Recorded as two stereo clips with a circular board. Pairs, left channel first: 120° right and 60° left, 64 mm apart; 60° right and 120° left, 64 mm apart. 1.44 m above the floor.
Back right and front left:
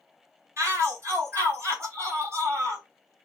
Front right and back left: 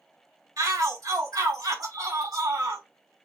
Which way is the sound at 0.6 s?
105° left.